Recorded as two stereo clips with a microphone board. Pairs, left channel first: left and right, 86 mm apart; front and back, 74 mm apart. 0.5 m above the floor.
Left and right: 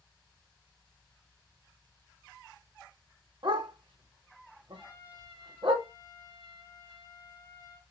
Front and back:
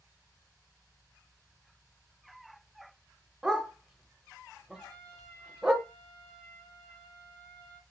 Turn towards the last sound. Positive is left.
turn(degrees=45)